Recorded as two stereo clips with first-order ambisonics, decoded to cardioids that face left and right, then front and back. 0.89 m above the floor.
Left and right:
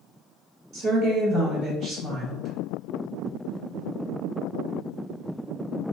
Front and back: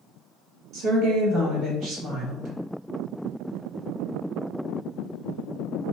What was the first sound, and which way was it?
A woman speaking, 140° right.